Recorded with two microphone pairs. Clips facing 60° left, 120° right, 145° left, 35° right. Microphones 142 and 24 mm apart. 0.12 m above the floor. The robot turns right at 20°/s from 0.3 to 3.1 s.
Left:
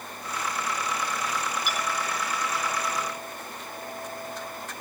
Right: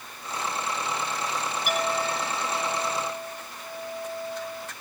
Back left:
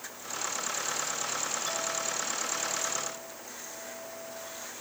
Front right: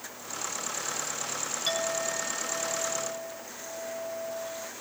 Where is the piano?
No piano in this recording.